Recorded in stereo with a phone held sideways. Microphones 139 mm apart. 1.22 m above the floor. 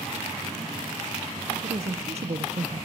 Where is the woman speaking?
50° right (ahead or behind), 1.1 m; by 2.9 s 45° right (ahead or behind), 0.7 m.